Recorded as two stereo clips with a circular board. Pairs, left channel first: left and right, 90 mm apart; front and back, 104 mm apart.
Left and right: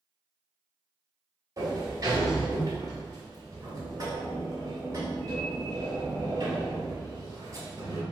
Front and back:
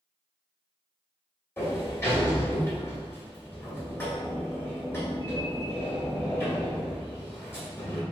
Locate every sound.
1.6 s a sliding door: 60° right, 1.4 m